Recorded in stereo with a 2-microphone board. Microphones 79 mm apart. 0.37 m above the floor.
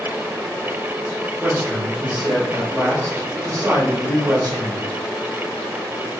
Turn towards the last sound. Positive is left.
turn(degrees=-45)  # may be behind; listen again after turning